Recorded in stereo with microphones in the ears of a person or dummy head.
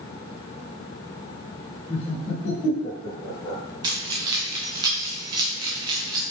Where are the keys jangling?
15° right (ahead or behind), 0.8 m.